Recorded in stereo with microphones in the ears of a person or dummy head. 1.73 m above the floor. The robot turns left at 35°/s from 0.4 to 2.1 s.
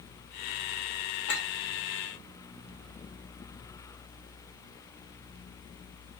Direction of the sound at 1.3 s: 60° left (ahead or behind).